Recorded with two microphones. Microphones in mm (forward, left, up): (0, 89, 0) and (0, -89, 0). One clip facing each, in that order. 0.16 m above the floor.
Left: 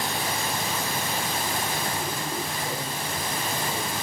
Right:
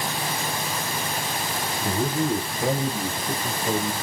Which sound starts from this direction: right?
A man speaking, at 1.8 s.